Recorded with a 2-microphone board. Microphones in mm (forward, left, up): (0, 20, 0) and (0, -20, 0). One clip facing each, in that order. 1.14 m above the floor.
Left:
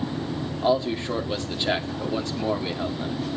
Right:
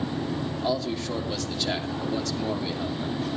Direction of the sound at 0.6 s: 25° left (ahead or behind).